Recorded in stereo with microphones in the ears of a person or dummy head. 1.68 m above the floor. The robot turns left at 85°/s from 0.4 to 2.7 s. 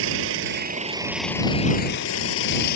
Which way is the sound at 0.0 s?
110° right.